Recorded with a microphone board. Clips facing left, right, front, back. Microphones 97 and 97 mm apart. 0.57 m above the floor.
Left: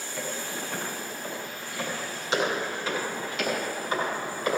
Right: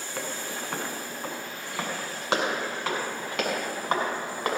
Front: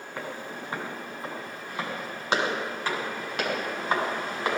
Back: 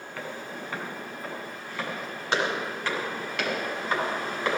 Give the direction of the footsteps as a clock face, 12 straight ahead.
2 o'clock.